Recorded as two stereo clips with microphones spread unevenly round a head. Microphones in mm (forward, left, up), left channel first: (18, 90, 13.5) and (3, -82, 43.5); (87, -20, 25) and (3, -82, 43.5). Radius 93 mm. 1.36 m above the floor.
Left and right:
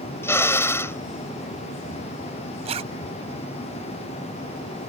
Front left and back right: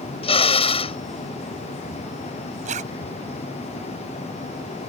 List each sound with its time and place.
0.2 s a drill: 5° left
2.6 s a zipper: 155° right